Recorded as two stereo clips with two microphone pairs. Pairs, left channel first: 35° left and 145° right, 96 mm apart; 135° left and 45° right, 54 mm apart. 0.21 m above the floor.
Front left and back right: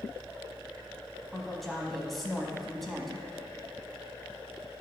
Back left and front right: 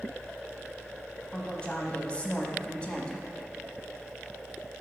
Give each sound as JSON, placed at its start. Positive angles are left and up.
{"t": 1.3, "sound": "a woman speaking", "azimuth_deg": 125, "distance_m": 1.0}